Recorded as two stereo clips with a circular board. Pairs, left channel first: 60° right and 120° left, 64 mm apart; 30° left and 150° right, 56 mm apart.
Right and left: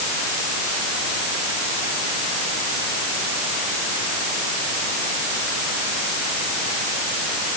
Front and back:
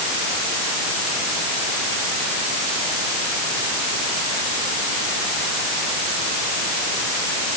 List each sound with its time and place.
Only background noise.